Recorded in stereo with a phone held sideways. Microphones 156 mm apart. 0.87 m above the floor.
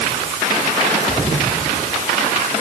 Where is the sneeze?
No sneeze in this recording.